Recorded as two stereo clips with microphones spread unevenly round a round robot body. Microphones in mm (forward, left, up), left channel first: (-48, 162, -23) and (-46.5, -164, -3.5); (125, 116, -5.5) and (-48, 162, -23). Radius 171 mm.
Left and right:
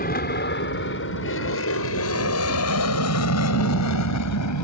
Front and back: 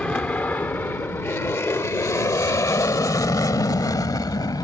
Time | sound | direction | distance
0.0 | an aircraft | 65° left | ?